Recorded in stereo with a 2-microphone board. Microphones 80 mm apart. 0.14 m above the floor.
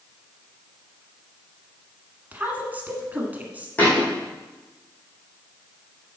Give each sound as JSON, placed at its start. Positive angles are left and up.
{"t": 2.3, "sound": "a woman speaking", "side_deg": -20, "distance_m": 1.4}
{"t": 3.8, "sound": "a thud", "side_deg": 15, "distance_m": 3.5}